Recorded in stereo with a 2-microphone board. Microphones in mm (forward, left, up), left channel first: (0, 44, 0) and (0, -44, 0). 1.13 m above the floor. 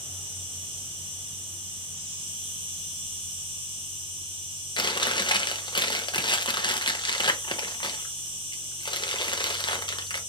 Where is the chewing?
55° left (ahead or behind), 0.7 m.